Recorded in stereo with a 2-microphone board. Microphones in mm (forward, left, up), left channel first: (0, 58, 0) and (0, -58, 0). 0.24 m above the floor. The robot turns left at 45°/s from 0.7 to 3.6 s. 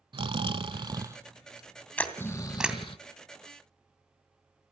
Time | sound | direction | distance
0.1 | snoring | 130° right | 0.6 m
2.0 | a camera shutter | 15° left (ahead or behind) | 2 m